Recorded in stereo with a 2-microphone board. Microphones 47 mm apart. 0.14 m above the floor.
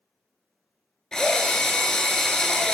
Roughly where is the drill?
Centre.